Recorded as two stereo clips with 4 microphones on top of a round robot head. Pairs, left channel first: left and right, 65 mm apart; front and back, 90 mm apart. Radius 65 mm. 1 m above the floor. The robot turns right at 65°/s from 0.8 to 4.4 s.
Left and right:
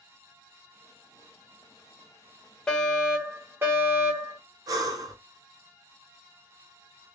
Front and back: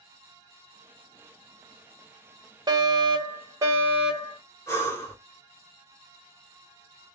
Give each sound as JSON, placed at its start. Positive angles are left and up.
{"t": 2.7, "sound": "a fire alarm", "azimuth_deg": 165, "distance_m": 2.0}
{"t": 4.7, "sound": "breathing", "azimuth_deg": -65, "distance_m": 1.5}